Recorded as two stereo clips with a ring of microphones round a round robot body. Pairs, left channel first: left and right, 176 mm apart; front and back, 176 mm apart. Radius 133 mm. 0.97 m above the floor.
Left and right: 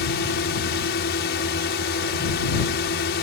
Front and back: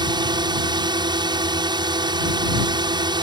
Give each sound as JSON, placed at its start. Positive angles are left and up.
{"t": 0.0, "sound": "a drone", "azimuth_deg": 115}